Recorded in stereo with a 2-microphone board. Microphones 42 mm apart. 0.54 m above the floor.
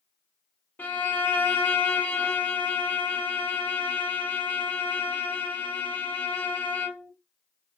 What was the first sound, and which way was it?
A violin, 45° left (ahead or behind).